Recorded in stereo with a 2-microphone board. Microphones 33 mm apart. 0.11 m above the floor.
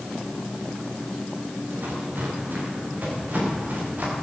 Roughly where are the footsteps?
Right.